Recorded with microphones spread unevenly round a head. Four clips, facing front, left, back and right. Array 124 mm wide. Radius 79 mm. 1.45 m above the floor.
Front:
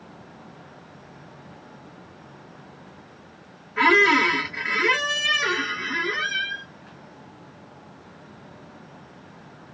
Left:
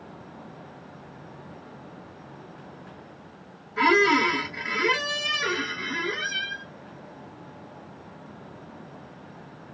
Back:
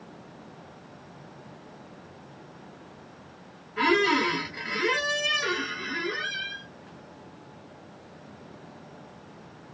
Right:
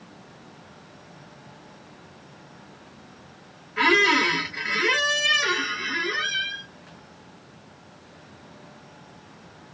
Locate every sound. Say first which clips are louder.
3.8 s a squeak: left 1 dB, front 4 dB; 60° right, 1.2 m